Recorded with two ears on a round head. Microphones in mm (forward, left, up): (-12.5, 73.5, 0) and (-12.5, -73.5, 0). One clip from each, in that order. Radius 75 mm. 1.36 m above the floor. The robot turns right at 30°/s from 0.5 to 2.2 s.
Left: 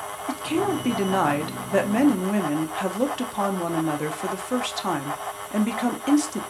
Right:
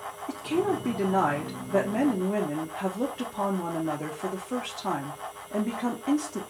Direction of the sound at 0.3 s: 40° left.